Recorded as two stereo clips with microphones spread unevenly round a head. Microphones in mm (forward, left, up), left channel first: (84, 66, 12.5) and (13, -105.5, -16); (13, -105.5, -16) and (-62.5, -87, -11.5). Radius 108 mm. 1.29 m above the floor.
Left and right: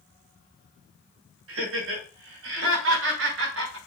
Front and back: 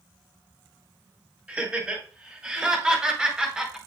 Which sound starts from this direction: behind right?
Laughter, at 1.5 s.